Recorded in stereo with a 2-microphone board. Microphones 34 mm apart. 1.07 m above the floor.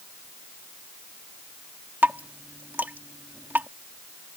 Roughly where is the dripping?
Right.